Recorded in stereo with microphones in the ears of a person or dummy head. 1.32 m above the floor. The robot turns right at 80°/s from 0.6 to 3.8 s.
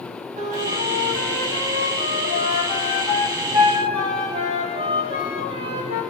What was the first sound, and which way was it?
A flute, 40° right.